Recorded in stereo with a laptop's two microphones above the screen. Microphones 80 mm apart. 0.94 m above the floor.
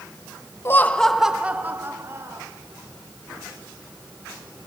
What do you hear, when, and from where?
0.7 s laughter: 30° left (ahead or behind), 1.0 m; by 2.5 s 35° right (ahead or behind), 2 m